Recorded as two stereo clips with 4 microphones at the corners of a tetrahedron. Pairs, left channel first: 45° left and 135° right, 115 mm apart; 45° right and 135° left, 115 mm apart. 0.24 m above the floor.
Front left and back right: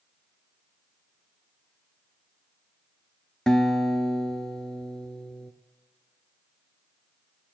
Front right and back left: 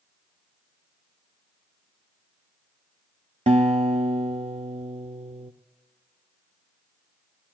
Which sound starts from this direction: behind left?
A guitar, at 3.5 s.